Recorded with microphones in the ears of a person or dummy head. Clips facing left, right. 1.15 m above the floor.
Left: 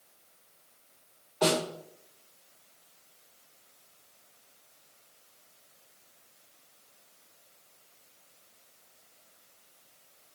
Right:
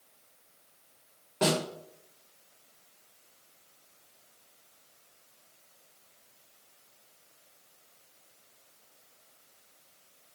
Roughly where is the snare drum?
Right.